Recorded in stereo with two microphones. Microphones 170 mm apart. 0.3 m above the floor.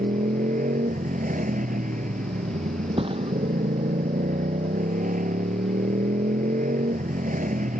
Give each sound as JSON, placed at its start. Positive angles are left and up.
{"t": 0.0, "sound": "a motorcycle", "side_deg": -50}
{"t": 3.0, "sound": "a thud", "side_deg": -30}